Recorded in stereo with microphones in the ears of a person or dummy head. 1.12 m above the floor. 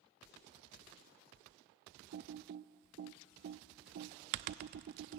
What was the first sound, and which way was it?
Typing on a keyboard, 40° right (ahead or behind).